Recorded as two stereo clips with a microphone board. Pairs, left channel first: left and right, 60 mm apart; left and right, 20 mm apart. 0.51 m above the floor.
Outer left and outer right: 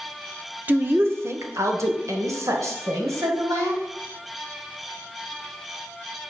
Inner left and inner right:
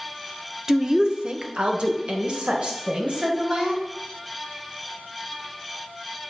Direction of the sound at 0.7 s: 35° right (ahead or behind).